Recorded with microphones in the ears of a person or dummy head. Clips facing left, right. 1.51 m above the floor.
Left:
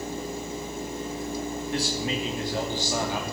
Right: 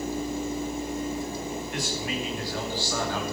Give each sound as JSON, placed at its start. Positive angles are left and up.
{"t": 1.7, "sound": "a man speaking", "side_deg": 35, "distance_m": 2.5}